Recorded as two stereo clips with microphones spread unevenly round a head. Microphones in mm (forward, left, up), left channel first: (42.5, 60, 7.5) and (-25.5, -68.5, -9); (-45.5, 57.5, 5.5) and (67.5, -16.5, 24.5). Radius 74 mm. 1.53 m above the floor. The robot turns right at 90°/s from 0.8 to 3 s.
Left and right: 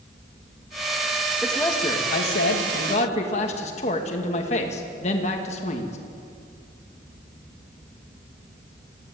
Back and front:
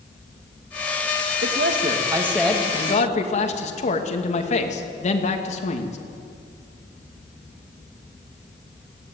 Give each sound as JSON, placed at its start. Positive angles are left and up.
{"t": 1.4, "sound": "a man speaking", "azimuth_deg": -30, "distance_m": 2.5}